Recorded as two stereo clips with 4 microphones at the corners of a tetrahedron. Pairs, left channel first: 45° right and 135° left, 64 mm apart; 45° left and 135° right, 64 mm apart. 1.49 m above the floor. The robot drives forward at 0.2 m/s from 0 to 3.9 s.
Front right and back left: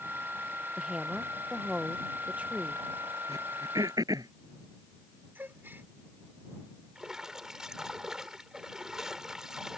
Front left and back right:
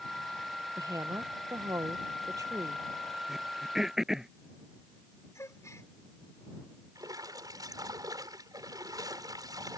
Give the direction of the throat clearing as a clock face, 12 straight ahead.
7 o'clock.